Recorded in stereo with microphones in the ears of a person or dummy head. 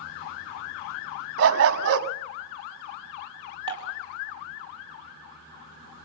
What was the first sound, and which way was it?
A dog barking, 65° right (ahead or behind).